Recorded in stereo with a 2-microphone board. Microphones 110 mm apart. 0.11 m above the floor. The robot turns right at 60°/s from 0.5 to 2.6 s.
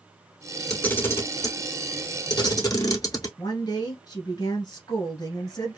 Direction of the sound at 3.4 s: 35° left (ahead or behind).